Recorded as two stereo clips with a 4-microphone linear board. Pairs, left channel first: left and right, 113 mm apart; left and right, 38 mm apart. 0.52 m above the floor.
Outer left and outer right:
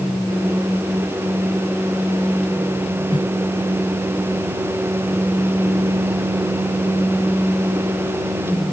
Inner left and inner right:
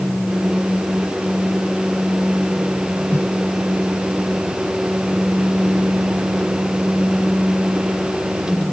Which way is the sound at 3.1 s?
45° left (ahead or behind).